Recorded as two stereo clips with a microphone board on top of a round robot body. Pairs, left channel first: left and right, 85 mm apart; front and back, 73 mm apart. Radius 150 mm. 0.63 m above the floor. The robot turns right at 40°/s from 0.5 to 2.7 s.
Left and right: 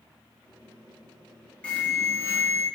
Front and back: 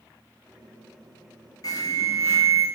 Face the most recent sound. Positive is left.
turn(degrees=55)